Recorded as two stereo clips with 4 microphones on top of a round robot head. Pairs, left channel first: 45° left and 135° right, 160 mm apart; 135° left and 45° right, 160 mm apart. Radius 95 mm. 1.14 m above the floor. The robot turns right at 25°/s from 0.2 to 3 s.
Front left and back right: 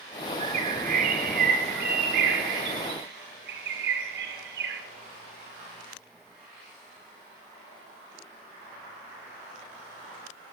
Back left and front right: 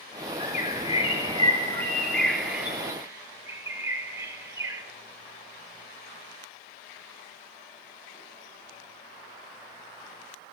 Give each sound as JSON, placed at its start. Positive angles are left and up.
{"t": 0.4, "sound": "a bird", "azimuth_deg": 175, "distance_m": 4.0}